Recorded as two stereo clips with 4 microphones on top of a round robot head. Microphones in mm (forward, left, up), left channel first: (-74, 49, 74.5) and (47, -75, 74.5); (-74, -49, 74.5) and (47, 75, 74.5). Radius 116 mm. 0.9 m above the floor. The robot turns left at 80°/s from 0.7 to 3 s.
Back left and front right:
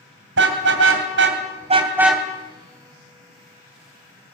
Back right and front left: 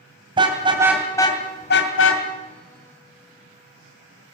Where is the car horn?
20° right, 2.5 m; by 2.2 s 145° right, 2.5 m.